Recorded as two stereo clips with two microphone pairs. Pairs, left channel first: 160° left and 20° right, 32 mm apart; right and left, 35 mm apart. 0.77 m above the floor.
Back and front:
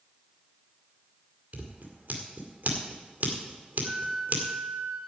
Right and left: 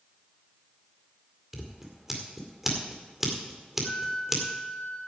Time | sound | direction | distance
1.5 | scissors | 5° left | 2 m
3.8 | a flute | 25° right | 2.5 m